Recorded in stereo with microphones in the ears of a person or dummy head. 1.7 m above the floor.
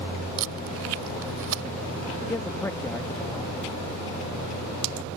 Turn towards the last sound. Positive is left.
turn(degrees=20)  # may be behind; listen again after turning